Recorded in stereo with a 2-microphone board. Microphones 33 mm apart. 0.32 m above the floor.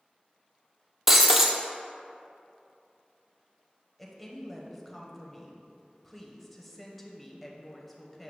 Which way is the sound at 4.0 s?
5° left (ahead or behind).